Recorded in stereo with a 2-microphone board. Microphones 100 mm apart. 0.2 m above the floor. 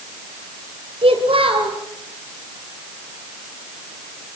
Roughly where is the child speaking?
Right.